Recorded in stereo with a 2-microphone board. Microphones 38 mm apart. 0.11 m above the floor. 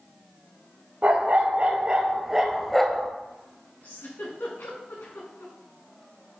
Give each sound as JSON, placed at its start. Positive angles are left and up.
{"t": 1.0, "sound": "a dog barking", "side_deg": -50, "distance_m": 1.4}
{"t": 3.8, "sound": "a giggle", "side_deg": 80, "distance_m": 4.0}